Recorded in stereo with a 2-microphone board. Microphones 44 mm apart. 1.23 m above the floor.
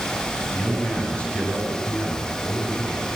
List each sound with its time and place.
0.5 s a man speaking: 25° left (ahead or behind), 8.5 m